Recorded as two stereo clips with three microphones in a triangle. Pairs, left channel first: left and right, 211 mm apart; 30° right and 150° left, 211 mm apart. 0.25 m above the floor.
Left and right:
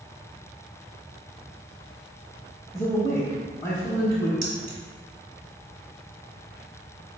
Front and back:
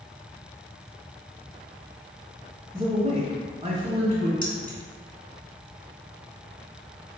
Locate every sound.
2.7 s a man speaking: 145° left, 1.1 m
4.4 s keys jangling: 70° right, 1.5 m